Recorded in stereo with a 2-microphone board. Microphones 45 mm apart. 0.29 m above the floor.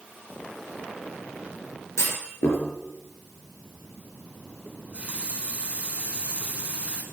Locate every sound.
2.0 s a clunk: 80° left, 3 m
4.7 s a running tap: 25° right (ahead or behind), 1.7 m